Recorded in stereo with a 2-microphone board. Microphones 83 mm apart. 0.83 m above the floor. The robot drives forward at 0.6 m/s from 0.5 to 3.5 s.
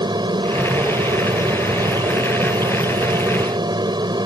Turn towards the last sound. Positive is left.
turn(degrees=-65)  # may be behind; listen again after turning